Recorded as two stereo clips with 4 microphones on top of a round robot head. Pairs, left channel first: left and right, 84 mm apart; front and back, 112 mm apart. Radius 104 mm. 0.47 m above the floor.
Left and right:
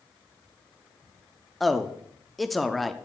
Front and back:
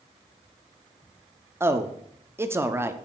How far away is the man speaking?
About 0.8 m.